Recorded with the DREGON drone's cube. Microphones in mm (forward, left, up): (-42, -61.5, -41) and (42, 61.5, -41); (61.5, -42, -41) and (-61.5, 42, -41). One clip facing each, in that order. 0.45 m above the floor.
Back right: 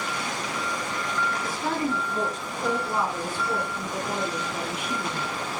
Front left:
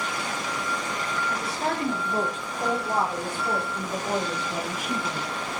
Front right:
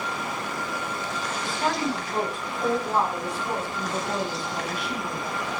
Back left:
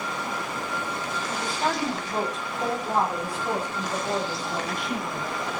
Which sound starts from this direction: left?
A woman speaking, at 1.3 s.